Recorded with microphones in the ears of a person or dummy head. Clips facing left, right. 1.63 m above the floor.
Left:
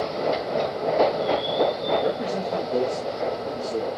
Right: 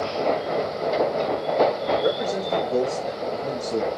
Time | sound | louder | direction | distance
2.0 | a man speaking | right 1 dB | 15° right (ahead or behind) | 3 m